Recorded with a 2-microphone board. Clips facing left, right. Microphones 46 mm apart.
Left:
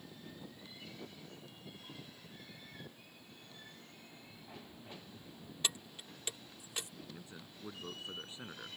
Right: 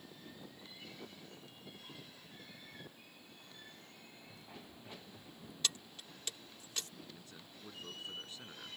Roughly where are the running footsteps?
Right.